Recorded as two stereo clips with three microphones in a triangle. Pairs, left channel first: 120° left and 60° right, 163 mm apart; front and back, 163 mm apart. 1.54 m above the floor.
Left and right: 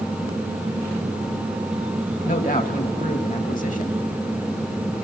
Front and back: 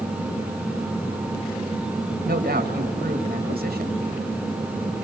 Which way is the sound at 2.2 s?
155° left.